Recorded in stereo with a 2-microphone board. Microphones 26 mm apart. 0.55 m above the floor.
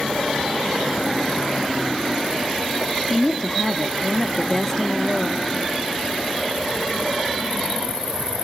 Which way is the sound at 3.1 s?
20° left (ahead or behind).